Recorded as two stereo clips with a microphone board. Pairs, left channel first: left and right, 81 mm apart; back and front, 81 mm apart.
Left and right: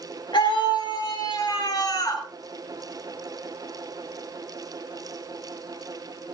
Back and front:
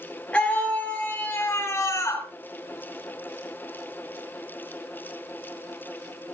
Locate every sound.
0.3 s a scream: 105° left, 4.5 m; by 2.2 s 135° left, 3 m